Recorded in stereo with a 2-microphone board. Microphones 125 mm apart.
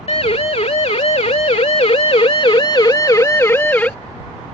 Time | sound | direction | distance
0.1 | a siren | 55° left (ahead or behind) | ?